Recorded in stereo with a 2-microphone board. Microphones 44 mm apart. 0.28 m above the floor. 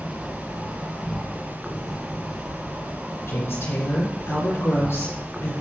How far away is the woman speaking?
About 4 m.